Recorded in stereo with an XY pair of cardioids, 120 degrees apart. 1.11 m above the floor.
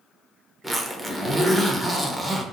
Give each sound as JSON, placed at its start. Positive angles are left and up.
{"t": 0.6, "sound": "a zipper", "azimuth_deg": 0, "distance_m": 0.6}